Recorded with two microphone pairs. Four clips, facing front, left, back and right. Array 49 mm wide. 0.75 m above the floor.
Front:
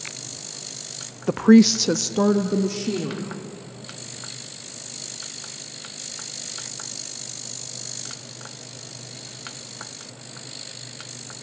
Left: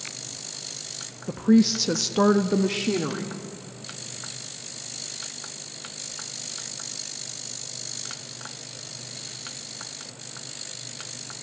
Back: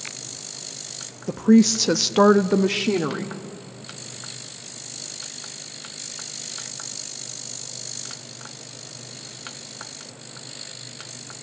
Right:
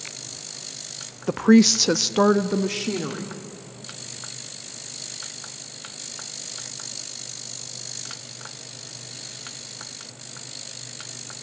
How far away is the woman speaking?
About 0.7 m.